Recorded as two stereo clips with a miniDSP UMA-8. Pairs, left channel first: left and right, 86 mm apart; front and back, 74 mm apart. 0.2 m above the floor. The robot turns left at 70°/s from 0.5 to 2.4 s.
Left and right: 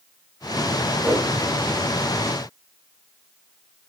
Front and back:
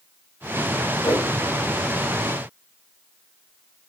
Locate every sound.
1.0 s a whoosh: 5° right, 4.5 m; by 1.3 s 20° right, 4.5 m